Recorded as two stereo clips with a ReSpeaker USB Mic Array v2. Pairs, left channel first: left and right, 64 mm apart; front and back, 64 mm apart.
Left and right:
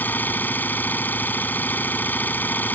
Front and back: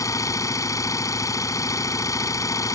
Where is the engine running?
30° left.